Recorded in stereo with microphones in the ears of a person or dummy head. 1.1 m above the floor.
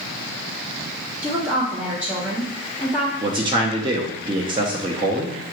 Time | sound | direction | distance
1.2 | a woman speaking | 15° right (ahead or behind) | 2 m
3.2 | a man speaking | 30° right (ahead or behind) | 0.5 m